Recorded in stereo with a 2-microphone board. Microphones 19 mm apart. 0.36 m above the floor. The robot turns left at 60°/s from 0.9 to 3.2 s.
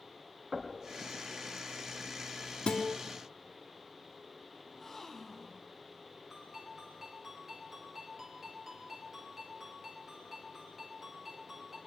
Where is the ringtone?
15° right (ahead or behind), 4 m.